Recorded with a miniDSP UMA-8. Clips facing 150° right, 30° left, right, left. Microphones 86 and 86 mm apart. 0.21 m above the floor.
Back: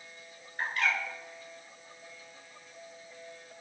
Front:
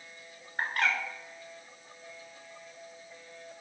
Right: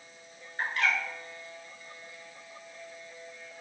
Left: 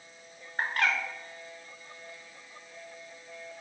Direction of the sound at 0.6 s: 60° left.